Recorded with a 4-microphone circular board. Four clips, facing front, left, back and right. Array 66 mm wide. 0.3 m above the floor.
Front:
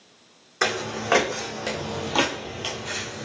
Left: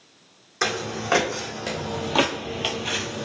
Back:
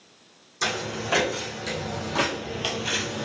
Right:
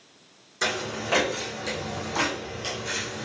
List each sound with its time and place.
0.6 s footsteps: 30° left, 1.2 m; by 3.3 s 140° left, 0.6 m